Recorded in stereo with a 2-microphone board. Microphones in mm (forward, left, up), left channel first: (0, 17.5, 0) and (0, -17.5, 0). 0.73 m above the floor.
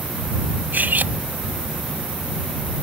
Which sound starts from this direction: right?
Cutlery clinking, at 0.7 s.